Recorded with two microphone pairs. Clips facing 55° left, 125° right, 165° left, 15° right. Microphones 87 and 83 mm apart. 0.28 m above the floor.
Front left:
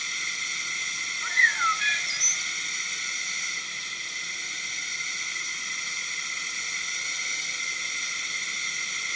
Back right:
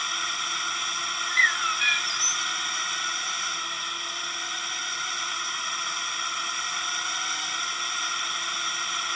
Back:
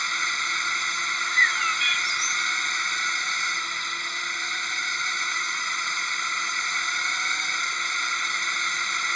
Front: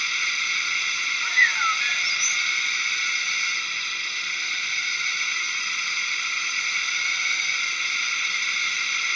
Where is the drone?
135° right.